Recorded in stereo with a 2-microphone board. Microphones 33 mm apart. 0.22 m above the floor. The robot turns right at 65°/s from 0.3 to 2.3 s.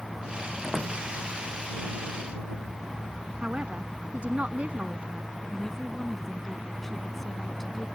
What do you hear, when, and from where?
0.6 s a door slam: 5° right (ahead or behind); by 1.0 s 30° right (ahead or behind)
3.4 s a man speaking: 50° right (ahead or behind)
5.5 s a woman speaking: 5° left (ahead or behind)